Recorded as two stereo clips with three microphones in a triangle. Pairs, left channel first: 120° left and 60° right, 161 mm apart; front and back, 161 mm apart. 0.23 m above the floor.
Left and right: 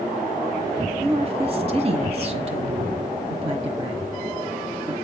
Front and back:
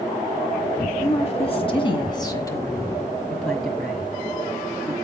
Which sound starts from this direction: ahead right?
A woman speaking, at 1.0 s.